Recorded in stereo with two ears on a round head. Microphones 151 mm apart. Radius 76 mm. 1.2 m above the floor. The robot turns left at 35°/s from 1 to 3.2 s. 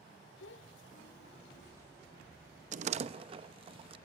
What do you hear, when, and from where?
0.4 s a child speaking: 85° left, 0.9 m; by 1.7 s 70° left (ahead or behind), 0.9 m
2.7 s a door slam: 50° right (ahead or behind), 0.8 m; by 4.0 s 35° right (ahead or behind), 0.8 m